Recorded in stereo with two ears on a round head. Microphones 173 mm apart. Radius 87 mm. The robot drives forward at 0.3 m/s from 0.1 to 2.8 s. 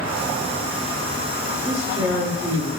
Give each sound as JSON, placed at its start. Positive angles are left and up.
{"t": 1.6, "sound": "a man speaking", "side_deg": -40, "distance_m": 1.0}